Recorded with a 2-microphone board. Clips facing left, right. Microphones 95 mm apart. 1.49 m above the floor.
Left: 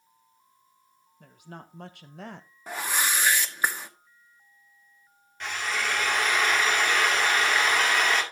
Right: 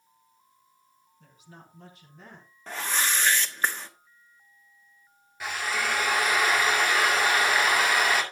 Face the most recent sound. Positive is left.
turn(degrees=-10)  # may be behind; listen again after turning